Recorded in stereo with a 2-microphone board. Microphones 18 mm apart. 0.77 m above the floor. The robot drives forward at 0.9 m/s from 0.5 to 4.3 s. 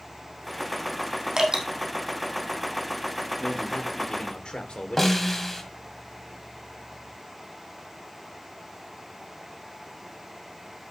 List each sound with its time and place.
1.4 s dripping: 35° right (ahead or behind), 4 m; by 1.6 s 40° right (ahead or behind), 4 m
3.4 s a man speaking: 70° left (ahead or behind), 2.5 m; by 5.2 s 60° left (ahead or behind), 2.5 m
5.0 s a snare drum: 15° left (ahead or behind), 1.7 m